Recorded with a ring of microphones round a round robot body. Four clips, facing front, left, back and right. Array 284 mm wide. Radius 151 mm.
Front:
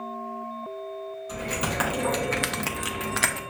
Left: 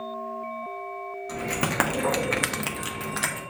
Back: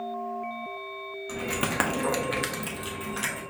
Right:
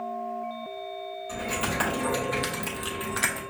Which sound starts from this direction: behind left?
Keys jangling, at 1.3 s.